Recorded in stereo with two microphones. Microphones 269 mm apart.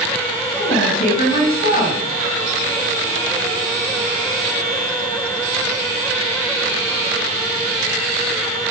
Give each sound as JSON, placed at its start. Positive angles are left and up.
{"t": 0.6, "sound": "a woman speaking", "side_deg": 35, "distance_m": 8.5}